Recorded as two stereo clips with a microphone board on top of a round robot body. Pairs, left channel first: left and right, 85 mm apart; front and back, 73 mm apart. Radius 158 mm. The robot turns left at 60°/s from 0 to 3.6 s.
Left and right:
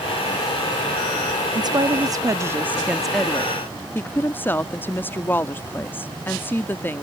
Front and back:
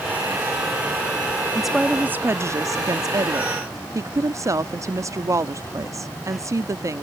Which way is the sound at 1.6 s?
85° right.